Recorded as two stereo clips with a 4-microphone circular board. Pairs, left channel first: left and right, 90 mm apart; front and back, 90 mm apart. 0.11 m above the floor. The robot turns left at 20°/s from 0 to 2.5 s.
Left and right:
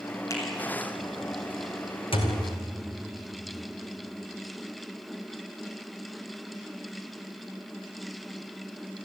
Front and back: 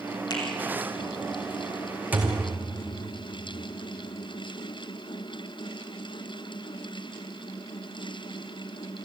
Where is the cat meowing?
I don't hear a cat meowing.